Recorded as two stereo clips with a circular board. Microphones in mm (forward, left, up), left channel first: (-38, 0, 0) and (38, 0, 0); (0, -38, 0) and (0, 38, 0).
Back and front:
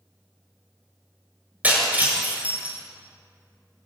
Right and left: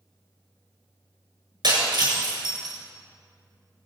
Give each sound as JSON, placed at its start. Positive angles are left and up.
{"t": 1.6, "sound": "breaking glass", "azimuth_deg": 70, "distance_m": 7.5}